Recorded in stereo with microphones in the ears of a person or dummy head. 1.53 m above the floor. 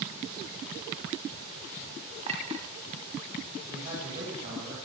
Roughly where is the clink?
Right.